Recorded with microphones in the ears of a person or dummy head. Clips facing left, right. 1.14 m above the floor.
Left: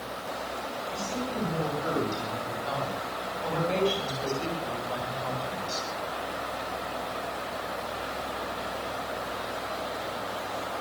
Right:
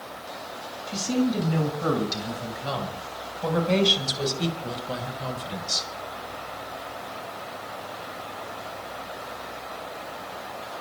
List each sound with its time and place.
0.9 s a woman speaking: 85° right, 6 m; by 5.9 s 35° right (ahead or behind), 4.5 m